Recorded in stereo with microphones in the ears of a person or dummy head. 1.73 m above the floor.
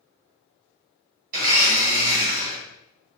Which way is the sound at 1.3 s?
50° right (ahead or behind).